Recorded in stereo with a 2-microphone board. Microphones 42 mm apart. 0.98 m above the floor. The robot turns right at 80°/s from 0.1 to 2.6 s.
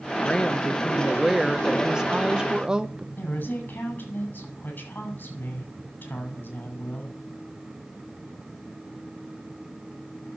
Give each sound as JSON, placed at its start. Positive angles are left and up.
{"t": 0.2, "sound": "a woman speaking", "side_deg": 20, "distance_m": 0.8}
{"t": 3.2, "sound": "a woman speaking", "side_deg": 50, "distance_m": 6.0}